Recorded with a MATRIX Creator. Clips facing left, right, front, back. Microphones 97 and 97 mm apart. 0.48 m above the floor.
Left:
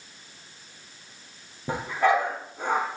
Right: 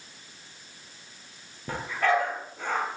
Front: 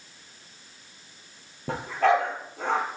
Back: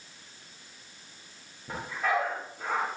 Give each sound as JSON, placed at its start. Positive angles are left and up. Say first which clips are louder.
{"t": 1.7, "sound": "a dog barking", "louder": "left 3 dB, front 7 dB", "azimuth_deg": 15, "distance_m": 3.5}